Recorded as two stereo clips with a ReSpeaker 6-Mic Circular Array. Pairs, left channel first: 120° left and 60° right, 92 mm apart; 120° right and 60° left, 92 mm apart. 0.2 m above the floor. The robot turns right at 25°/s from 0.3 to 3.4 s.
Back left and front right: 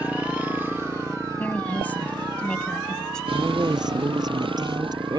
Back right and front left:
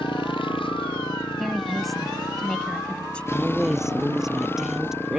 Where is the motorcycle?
135° right; by 5.2 s 55° right.